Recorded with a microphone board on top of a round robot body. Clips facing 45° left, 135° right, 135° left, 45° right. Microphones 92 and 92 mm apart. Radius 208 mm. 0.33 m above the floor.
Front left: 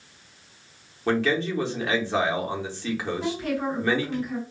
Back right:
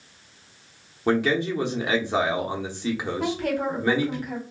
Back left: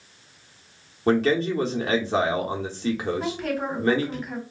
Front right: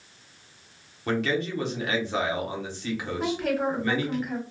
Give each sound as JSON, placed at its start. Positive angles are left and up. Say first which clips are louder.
{"t": 1.1, "sound": "a man speaking", "louder": "back right 1 dB, back left 6 dB", "azimuth_deg": 160, "distance_m": 1.0}
{"t": 3.2, "sound": "a woman speaking", "louder": "back right 5 dB, front right 1 dB", "azimuth_deg": -130, "distance_m": 1.6}